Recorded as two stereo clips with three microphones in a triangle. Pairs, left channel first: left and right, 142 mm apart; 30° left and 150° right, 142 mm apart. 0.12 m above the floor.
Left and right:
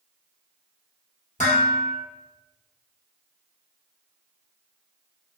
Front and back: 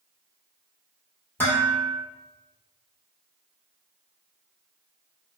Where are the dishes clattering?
100° left, 1.8 m.